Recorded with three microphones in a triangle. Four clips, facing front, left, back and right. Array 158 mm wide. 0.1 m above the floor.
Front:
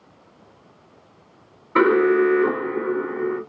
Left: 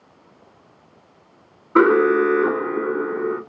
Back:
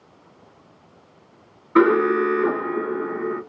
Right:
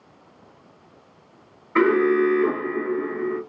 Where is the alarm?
85° left, 1.4 m.